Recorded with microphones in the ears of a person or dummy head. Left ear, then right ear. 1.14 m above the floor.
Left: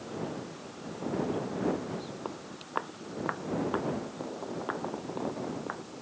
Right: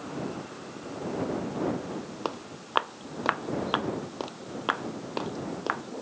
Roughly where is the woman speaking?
I don't hear a woman speaking.